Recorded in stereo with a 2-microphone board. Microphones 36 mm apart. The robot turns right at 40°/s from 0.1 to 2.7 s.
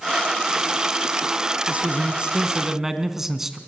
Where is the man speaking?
50° right, 2.0 m; by 3.6 s 10° right, 2.0 m.